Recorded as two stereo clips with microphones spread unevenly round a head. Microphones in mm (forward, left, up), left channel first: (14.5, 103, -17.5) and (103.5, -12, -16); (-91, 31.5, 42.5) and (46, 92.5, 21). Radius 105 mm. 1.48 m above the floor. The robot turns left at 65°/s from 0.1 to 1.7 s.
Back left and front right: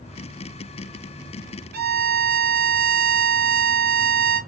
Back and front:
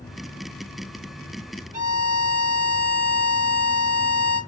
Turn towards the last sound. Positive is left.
turn(degrees=-50)